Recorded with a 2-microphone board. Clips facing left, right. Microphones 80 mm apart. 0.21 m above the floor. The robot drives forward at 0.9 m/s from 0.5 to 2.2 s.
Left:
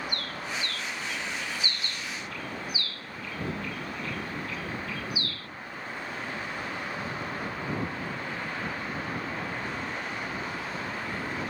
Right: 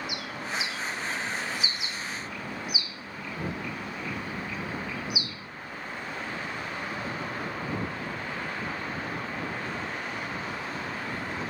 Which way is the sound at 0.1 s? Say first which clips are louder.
Right 1 dB; 10° right (ahead or behind).